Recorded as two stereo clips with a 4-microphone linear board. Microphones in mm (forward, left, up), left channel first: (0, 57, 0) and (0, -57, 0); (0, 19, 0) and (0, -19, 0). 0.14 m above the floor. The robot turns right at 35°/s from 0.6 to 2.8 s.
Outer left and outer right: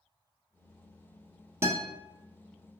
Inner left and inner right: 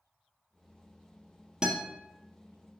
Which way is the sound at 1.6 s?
25° right (ahead or behind).